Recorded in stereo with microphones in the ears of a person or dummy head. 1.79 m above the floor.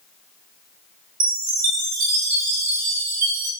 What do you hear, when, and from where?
1.2 s a chime: 35° right (ahead or behind), 0.6 m